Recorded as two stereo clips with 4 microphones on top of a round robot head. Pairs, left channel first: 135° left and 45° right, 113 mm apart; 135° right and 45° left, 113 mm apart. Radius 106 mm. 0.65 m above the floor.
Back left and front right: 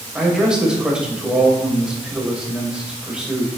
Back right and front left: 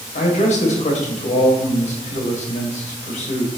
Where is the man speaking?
125° right, 3 m.